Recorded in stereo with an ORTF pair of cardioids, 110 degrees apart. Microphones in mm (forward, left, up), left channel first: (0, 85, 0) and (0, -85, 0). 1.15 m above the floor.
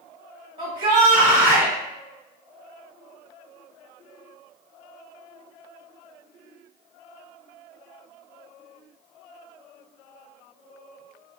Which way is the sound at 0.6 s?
35° right.